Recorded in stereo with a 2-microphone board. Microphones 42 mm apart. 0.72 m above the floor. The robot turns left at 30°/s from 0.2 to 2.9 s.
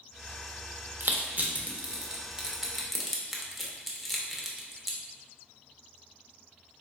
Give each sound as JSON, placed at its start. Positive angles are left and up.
{"t": 1.0, "sound": "crushing", "side_deg": -50, "distance_m": 0.6}